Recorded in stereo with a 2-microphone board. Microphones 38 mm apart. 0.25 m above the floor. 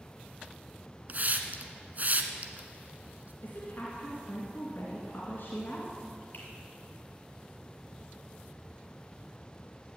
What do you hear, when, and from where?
1.1 s a hiss: 45° right (ahead or behind), 1.1 m
3.4 s a woman speaking: 60° left (ahead or behind), 2.5 m
6.3 s a finger snap: 50° left (ahead or behind), 4.5 m